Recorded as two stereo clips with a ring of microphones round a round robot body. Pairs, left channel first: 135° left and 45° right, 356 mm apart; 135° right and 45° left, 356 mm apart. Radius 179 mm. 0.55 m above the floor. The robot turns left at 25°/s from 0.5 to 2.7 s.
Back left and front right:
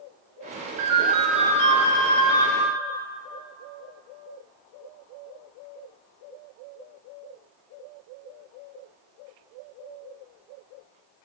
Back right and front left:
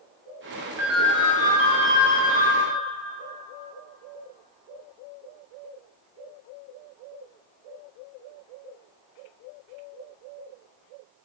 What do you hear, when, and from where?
0.8 s a ringtone: 40° right, 1.6 m; by 2.5 s 85° right, 1.6 m